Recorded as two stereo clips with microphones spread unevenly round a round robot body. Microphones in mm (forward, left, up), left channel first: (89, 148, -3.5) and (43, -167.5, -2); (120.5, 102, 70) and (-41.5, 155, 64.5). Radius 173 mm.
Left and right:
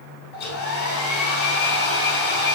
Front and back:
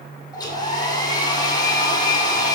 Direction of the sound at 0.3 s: 50° left.